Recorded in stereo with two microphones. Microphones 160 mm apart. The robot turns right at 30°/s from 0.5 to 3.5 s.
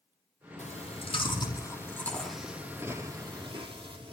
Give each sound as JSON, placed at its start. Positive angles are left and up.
{"t": 0.6, "sound": "chewing", "side_deg": 50, "distance_m": 4.5}